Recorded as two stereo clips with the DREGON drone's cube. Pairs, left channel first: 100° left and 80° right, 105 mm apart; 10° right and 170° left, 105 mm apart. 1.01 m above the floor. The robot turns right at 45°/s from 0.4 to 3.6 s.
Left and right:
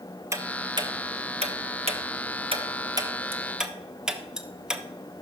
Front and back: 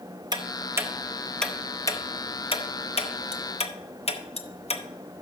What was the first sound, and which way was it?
Ticking, 140° right.